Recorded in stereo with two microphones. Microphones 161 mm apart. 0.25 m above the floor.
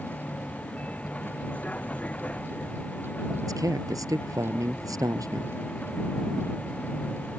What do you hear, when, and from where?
0.0 s a vehicle: 10° left (ahead or behind)
3.4 s a man speaking: 20° right (ahead or behind)